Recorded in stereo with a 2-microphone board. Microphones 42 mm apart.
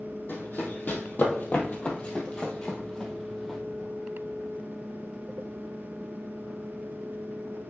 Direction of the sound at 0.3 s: 50° left (ahead or behind).